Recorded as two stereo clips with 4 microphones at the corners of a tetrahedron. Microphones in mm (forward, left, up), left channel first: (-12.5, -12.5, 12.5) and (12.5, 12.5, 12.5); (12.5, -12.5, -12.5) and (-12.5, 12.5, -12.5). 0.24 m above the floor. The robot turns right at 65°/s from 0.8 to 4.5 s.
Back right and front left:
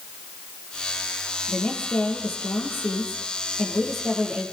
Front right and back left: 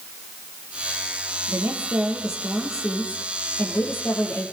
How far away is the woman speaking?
About 7.5 m.